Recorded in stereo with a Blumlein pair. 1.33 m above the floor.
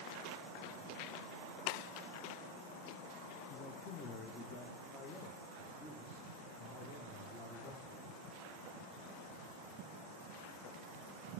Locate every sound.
3.5 s a man speaking: 20° left, 1.0 m; by 8.1 s 30° left, 3.5 m